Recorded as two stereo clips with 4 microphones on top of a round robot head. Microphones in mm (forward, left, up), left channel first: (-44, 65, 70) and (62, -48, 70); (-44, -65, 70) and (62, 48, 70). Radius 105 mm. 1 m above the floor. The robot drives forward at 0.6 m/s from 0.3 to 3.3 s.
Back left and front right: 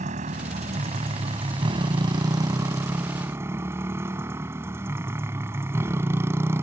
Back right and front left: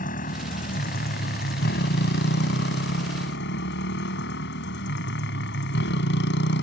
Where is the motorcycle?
95° right; by 6.6 s 125° right.